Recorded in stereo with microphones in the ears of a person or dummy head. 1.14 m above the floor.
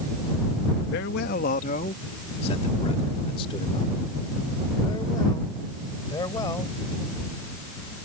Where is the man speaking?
60° left (ahead or behind); by 6.8 s 20° left (ahead or behind).